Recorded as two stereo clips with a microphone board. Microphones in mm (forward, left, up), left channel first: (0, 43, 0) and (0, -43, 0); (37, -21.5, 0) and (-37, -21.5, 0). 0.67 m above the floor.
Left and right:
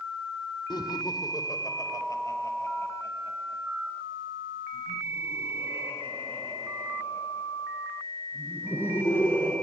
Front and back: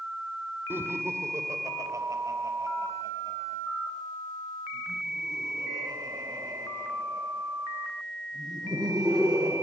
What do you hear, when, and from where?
0.7 s laughter: 120° left, 1.7 m; by 9.5 s 155° left, 10 m